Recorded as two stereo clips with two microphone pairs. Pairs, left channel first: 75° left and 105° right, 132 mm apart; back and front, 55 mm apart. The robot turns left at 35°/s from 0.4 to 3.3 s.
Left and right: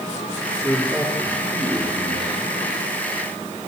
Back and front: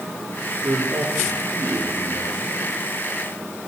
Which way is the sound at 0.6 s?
5° right.